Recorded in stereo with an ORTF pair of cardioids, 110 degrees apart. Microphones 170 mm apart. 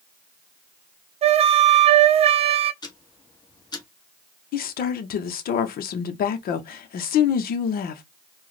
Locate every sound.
1.2 s a flute: 35° right, 0.6 m
2.8 s ticking: 25° left, 1.7 m
4.5 s a woman speaking: 60° left, 1.1 m